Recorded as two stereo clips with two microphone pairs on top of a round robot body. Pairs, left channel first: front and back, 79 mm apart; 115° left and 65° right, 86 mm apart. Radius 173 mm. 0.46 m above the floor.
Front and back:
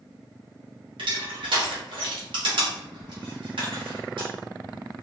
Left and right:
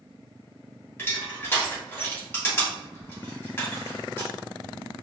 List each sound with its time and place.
1.0 s crushing: straight behind, 1.1 m